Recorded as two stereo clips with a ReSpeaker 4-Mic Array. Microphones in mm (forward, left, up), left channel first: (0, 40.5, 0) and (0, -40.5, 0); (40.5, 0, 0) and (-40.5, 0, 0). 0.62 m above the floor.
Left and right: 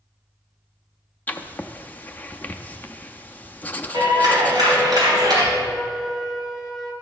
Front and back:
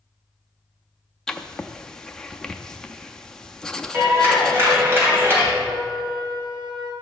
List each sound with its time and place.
1.3 s writing: 70° left, 0.5 m
3.9 s a clap: 120° right, 3 m
5.6 s a flute: 175° right, 1.9 m